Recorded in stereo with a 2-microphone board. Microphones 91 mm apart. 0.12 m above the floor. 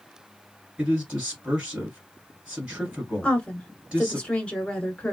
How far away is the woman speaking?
About 1.1 m.